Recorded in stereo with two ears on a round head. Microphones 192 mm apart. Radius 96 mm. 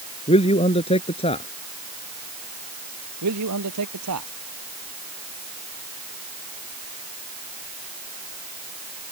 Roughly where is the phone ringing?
No phone ringing in this recording.